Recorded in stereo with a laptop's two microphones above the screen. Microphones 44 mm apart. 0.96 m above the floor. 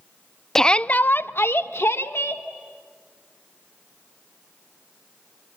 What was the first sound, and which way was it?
A shout, 10° left (ahead or behind).